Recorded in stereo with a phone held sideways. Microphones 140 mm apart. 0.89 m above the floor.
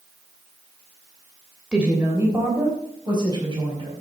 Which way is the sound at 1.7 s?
5° right (ahead or behind).